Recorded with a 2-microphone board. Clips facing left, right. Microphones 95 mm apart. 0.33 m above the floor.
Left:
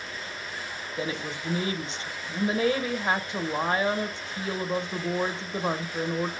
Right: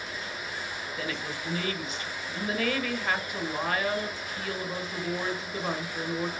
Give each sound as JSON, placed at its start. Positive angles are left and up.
{"t": 1.0, "sound": "a woman speaking", "side_deg": 25, "distance_m": 1.1}